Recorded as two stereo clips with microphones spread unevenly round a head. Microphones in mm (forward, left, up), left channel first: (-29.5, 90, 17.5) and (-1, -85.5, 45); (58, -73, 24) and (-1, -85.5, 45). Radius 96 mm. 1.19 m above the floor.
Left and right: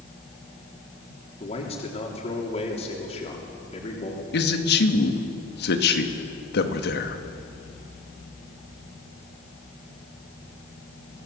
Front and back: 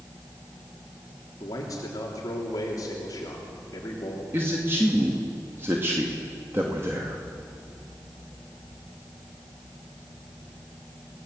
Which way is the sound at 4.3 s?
115° left.